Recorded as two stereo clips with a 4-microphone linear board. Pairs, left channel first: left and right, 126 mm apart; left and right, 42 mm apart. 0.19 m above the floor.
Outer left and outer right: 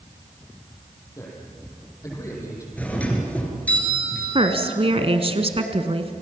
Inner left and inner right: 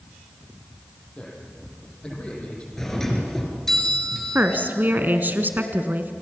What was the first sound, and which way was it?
A man speaking, 25° left (ahead or behind).